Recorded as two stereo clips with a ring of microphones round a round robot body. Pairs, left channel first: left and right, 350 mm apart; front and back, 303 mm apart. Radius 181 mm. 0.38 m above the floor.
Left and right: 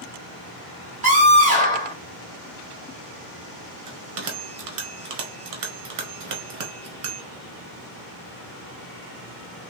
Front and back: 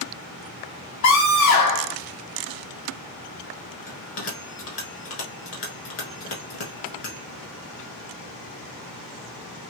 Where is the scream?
25° right, 1.8 m.